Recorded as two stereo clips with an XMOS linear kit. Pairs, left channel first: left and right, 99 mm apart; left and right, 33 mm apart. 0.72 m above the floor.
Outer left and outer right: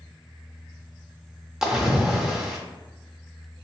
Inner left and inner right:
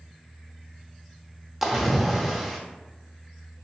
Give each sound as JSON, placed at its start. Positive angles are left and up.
{"t": 1.6, "sound": "a splash", "side_deg": -5, "distance_m": 0.5}